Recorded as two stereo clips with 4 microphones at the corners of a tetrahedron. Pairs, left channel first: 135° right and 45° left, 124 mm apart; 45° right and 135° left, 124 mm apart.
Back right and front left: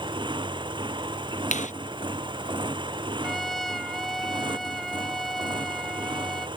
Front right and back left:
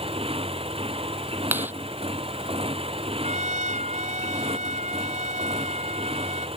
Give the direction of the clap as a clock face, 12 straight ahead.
5 o'clock.